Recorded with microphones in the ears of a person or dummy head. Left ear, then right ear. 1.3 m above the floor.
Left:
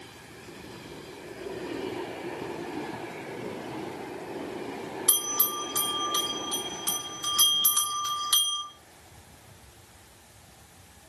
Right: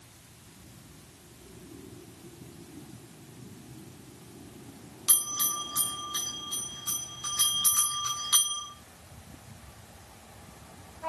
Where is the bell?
20° left (ahead or behind), 1.1 m.